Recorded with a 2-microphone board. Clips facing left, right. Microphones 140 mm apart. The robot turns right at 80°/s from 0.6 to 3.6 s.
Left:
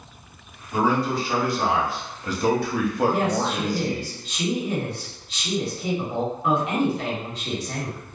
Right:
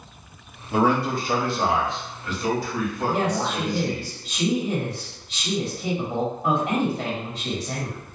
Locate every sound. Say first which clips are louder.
0.7 s a man speaking: right 1 dB; 90° right, 0.7 m; by 4.1 s 140° left, 0.7 m
3.1 s a woman speaking: left 1 dB; 85° right, 1.6 m; by 8.0 s 45° right, 1.6 m